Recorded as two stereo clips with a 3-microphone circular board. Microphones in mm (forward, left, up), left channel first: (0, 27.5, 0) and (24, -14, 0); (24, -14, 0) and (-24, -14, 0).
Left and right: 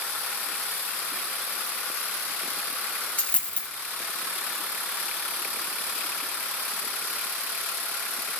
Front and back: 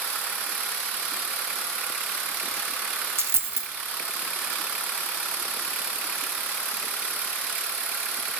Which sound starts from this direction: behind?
A dropped coin, at 3.2 s.